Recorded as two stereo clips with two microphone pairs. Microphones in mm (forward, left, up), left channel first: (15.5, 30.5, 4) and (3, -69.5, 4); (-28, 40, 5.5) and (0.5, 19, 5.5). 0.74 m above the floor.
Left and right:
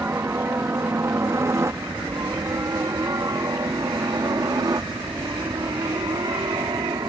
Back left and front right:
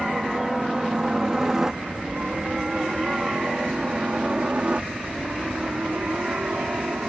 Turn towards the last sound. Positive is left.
turn(degrees=-70)